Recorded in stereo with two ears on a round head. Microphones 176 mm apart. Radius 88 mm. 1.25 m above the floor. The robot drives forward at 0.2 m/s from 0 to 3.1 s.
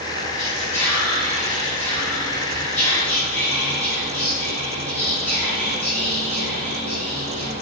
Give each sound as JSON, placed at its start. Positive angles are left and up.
{"t": 0.4, "sound": "whispering", "side_deg": 35, "distance_m": 0.7}